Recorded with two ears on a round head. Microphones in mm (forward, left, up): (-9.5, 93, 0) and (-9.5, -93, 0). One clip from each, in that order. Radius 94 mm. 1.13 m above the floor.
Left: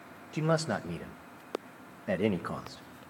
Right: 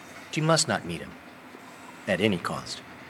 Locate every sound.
0.3 s a man speaking: 65° right (ahead or behind), 0.8 m